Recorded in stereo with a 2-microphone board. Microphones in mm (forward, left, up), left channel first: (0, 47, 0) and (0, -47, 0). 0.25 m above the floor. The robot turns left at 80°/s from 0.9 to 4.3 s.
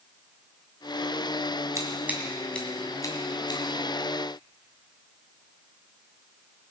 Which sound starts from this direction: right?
Scissors, at 1.8 s.